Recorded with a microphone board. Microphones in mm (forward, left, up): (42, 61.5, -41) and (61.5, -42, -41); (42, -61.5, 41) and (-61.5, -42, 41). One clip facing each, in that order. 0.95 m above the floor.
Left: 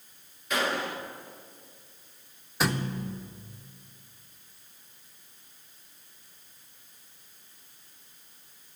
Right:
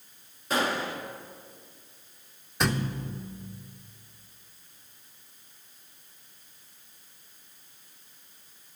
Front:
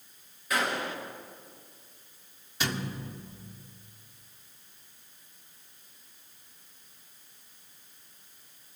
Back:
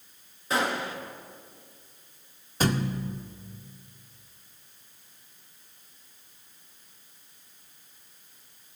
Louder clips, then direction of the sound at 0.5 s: Right 1 dB, back 2 dB; 130° right.